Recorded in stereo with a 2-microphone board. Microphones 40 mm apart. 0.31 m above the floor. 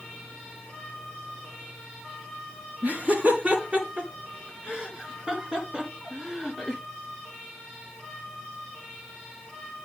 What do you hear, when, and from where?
2.8 s laughter: 50° right (ahead or behind), 3.5 m; by 6.8 s 10° right (ahead or behind), 3 m